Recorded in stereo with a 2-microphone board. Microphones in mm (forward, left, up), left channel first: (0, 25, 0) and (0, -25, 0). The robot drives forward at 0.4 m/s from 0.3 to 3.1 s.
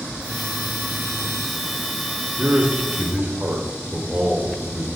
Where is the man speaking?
35° right (ahead or behind), 1.5 m.